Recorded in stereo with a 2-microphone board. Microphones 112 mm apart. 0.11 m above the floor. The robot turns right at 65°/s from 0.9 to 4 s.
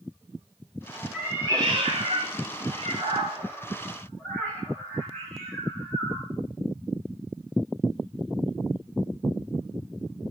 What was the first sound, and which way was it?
A cat meowing, 5° right (ahead or behind).